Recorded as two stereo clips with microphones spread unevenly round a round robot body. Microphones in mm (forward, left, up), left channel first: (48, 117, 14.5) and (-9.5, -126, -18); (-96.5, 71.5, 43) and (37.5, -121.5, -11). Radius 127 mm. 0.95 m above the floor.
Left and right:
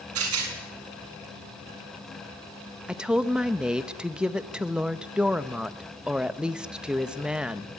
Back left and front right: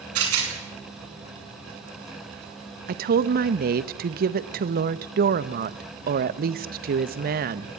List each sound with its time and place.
0.1 s a rattle: 75° right, 7.5 m
2.9 s a woman speaking: 20° right, 1.0 m